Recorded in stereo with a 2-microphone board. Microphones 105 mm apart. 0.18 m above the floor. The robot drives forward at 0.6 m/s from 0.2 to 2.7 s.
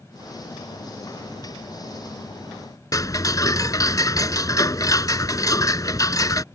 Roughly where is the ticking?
Left.